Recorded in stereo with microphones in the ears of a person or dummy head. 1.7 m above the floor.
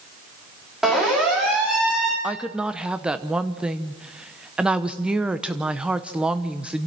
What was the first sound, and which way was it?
A siren, centre (ahead or behind).